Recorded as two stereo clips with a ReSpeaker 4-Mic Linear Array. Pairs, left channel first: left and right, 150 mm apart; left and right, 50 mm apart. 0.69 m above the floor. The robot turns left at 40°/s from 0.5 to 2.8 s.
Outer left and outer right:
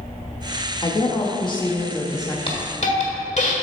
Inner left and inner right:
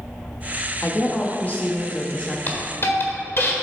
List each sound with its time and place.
0.8 s a woman speaking: 95° left, 0.8 m; by 2.4 s 35° left, 0.8 m
2.5 s a hiss: 40° left (ahead or behind), 1.3 m; by 3.5 s 50° left (ahead or behind), 1.3 m